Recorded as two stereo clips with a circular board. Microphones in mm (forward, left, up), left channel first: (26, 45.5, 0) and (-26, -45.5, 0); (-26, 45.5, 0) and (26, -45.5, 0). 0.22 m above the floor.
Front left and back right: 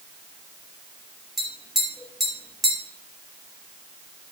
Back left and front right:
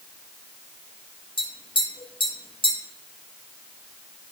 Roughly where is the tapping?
Behind left.